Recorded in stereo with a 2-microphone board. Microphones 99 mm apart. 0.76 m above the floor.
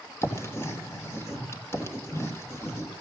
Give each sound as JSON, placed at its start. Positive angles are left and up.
{"t": 0.2, "sound": "writing", "side_deg": 25, "distance_m": 3.0}